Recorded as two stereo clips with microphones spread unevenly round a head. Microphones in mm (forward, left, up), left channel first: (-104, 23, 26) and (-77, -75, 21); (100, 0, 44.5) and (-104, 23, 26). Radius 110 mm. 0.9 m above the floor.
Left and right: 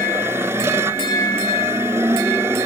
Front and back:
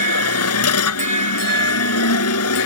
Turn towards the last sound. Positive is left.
turn(degrees=5)